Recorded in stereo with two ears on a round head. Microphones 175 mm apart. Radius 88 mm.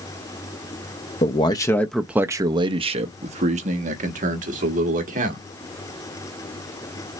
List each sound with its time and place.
1.2 s a man speaking: 30° left (ahead or behind), 0.6 m; by 5.5 s 45° right (ahead or behind), 2 m